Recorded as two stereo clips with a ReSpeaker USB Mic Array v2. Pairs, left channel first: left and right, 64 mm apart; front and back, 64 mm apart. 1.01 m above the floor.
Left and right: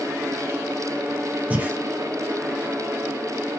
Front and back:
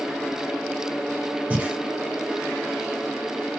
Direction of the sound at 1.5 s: 130° right.